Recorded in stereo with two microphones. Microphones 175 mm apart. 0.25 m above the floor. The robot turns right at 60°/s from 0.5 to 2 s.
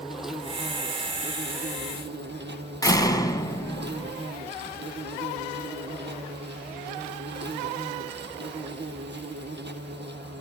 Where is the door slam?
20° left (ahead or behind), 1.6 m.